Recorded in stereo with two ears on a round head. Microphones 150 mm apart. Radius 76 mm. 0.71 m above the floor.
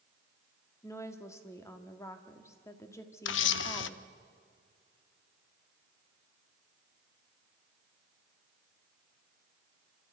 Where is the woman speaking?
20° left (ahead or behind), 1.8 m.